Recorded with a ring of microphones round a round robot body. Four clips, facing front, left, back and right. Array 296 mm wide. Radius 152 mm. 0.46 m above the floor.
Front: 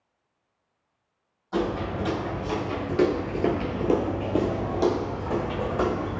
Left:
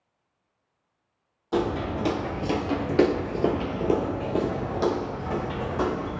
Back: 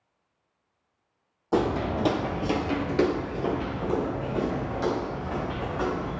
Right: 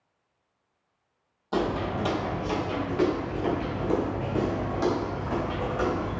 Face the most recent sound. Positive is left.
turn(degrees=20)